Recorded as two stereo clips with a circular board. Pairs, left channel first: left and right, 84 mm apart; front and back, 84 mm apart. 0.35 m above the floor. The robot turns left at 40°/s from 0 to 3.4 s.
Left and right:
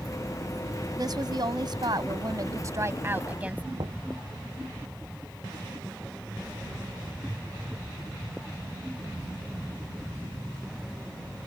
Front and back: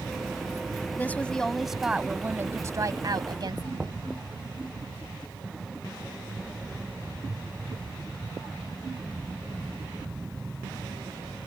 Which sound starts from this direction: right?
Knocking, at 3.8 s.